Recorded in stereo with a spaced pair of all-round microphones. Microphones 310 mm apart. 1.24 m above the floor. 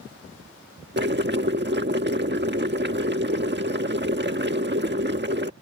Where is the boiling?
35° right (ahead or behind).